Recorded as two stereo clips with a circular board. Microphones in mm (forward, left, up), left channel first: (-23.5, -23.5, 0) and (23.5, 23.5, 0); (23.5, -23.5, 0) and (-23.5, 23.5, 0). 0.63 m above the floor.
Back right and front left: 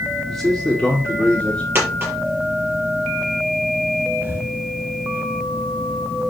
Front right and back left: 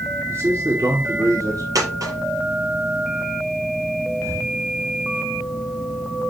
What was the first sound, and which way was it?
A man speaking, 145° left.